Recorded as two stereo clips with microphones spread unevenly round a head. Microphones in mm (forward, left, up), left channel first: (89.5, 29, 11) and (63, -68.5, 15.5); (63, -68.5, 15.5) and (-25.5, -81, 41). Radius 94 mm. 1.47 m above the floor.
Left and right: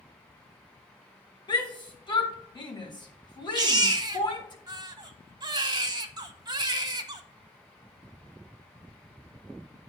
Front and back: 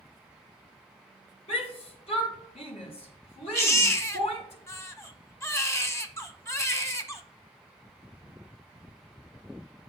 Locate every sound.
1.5 s a shout: 30° left, 2 m
3.5 s a baby crying: 60° right, 0.9 m